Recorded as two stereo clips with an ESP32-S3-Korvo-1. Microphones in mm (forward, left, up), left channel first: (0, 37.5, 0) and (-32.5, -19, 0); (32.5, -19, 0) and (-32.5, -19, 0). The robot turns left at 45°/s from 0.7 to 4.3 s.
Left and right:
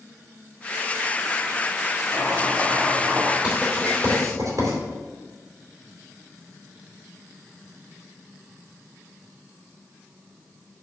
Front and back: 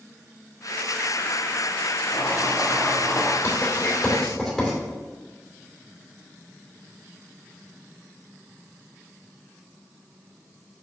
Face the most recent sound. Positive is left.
turn(degrees=-90)